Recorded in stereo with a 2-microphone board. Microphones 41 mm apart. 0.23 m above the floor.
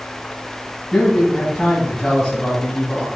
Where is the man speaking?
15° left (ahead or behind), 1.9 m.